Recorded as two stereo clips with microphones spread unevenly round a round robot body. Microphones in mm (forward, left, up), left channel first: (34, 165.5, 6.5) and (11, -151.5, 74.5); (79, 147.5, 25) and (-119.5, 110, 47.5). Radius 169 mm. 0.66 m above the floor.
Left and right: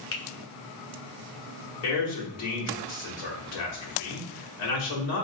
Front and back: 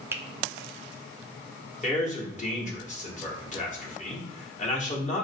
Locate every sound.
0.1 s a finger snap: 110° left, 0.6 m
1.8 s a man speaking: 55° left, 1.6 m